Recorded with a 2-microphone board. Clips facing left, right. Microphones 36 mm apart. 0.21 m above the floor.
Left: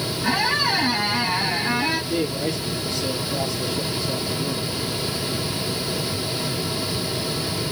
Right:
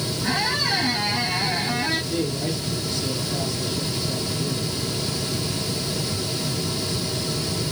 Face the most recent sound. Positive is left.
turn(degrees=20)  # may be behind; listen again after turning